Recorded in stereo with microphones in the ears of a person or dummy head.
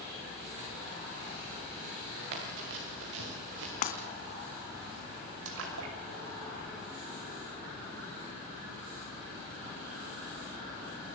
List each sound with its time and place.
2.3 s running footsteps: 70° right (ahead or behind), 6 m; by 3.7 s 75° right (ahead or behind), 5.5 m
3.8 s breaking glass: 45° left (ahead or behind), 2.5 m
5.5 s a splash: 85° right, 6 m